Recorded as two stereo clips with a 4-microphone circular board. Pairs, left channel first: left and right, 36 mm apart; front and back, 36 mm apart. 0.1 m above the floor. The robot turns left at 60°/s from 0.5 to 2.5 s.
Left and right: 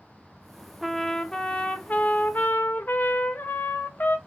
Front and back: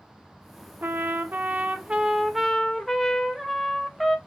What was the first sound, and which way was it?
A trumpet, 175° right.